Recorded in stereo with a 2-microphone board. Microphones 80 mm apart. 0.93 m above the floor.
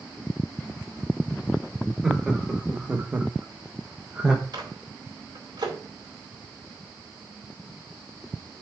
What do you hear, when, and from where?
2.0 s laughter: 10° right (ahead or behind), 2.5 m
4.5 s a microwave: 60° right (ahead or behind), 4.5 m